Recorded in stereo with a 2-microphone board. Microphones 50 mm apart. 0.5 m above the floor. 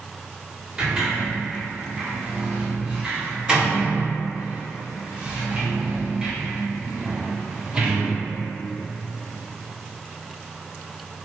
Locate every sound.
0.8 s a sliding door: 15° right (ahead or behind), 1.1 m